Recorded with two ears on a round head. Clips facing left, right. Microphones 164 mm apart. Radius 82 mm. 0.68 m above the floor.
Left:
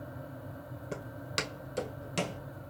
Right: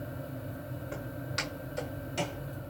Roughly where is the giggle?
I don't hear a giggle.